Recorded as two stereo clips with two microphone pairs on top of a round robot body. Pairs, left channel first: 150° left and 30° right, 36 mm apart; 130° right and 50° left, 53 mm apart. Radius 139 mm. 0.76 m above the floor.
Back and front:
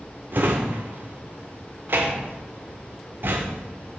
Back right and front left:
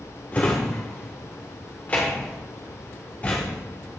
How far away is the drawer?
About 0.5 m.